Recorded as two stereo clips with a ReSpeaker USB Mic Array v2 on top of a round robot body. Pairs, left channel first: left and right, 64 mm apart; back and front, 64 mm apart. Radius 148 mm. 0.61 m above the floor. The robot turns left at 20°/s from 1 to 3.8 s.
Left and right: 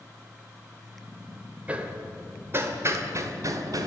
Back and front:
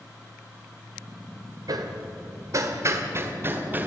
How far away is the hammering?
About 2 m.